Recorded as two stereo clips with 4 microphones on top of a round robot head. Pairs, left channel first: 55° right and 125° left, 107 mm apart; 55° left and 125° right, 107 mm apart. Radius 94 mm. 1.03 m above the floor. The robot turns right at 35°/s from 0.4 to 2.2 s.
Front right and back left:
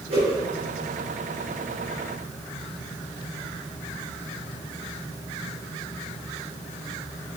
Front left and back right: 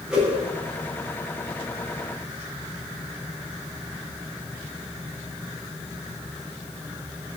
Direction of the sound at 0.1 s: 150° left.